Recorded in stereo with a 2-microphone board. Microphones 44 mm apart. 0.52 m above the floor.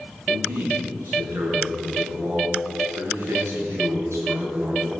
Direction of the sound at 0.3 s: 80° right.